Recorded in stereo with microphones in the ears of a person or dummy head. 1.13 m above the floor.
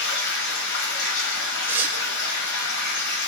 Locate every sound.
0.0 s running water: 60° left (ahead or behind), 0.7 m
1.7 s tearing paper: 10° right (ahead or behind), 0.5 m